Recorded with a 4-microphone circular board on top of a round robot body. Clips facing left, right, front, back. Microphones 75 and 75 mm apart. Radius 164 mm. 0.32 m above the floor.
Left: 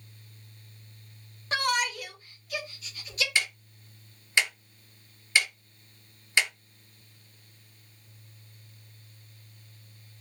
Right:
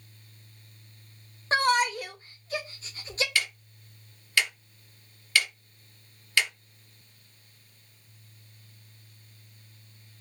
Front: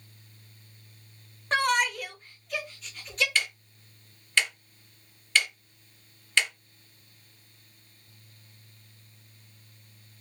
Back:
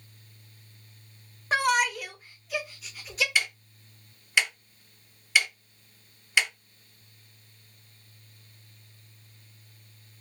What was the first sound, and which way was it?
A shout, 100° right.